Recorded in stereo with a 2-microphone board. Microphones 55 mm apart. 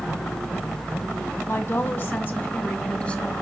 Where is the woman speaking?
45° left (ahead or behind), 1.9 m; by 3.3 s 20° left (ahead or behind), 2.5 m.